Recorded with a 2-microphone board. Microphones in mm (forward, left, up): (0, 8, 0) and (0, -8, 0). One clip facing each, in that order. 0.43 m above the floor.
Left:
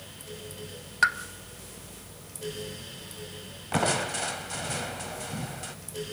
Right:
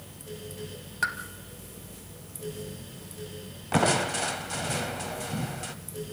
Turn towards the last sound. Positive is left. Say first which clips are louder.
# right 2 dB
turn(degrees=-5)  # may be behind; listen again after turning